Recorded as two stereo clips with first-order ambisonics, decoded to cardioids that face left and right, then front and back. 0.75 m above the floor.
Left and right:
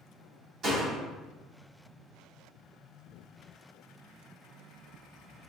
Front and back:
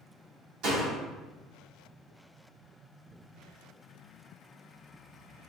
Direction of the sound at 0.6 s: 150° right.